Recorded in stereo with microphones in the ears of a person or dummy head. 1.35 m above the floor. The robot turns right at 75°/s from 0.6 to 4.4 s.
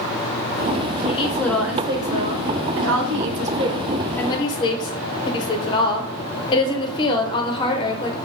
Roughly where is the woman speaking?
Behind left.